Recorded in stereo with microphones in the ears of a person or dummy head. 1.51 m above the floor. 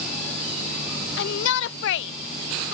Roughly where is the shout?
Left.